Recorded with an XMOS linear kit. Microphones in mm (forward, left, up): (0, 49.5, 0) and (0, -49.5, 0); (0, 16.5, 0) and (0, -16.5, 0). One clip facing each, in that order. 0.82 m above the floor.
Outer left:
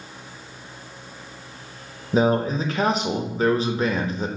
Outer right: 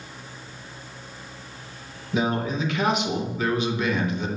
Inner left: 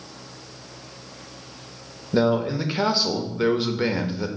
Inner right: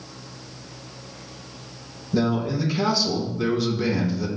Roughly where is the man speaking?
Left.